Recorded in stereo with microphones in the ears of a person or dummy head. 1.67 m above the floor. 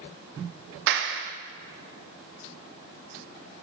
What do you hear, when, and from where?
0.9 s a clap: 60° right (ahead or behind), 0.8 m